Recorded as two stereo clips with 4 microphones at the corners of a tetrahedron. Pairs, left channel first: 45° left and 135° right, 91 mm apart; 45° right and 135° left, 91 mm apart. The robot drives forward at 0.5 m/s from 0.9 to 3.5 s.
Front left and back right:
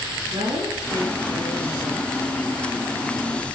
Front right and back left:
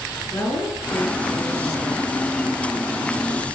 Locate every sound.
0.3 s a woman speaking: 105° right, 9.5 m; by 2.1 s 110° right, 10 m